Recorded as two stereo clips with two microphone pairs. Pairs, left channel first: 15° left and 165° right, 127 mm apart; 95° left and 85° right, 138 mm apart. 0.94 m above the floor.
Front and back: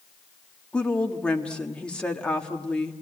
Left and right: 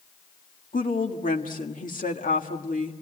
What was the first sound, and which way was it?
A woman speaking, 100° left.